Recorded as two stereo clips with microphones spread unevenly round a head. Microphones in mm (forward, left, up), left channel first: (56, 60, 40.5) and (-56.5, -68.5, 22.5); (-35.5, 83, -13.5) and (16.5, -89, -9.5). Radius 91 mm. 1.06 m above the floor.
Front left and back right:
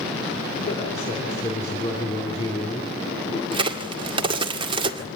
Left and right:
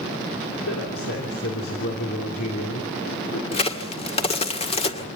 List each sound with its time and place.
0.7 s a man speaking: 105° left, 3 m
3.5 s a crack: 165° left, 1.9 m